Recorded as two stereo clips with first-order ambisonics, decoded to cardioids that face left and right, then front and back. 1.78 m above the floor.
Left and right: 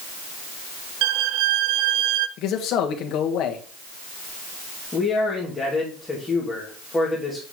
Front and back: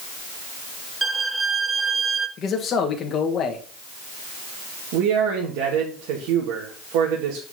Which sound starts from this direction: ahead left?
A man speaking, at 2.4 s.